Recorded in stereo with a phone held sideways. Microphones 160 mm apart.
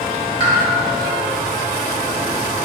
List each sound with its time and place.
0.4 s a pop: 35° left (ahead or behind), 1.1 m